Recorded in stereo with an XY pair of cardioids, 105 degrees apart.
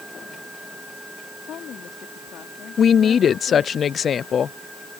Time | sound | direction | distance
1.4 | a woman speaking | 65° left | ?
2.8 | a woman speaking | 50° left | ?